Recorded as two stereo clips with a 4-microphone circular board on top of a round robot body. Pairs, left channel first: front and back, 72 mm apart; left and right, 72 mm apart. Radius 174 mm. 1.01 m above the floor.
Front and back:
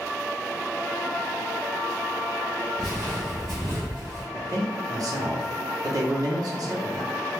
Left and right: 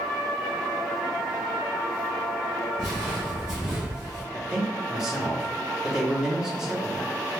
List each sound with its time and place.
2.8 s footsteps: 65° left, 1.0 m; by 4.2 s 85° right, 1.1 m
4.3 s a man speaking: 170° right, 0.8 m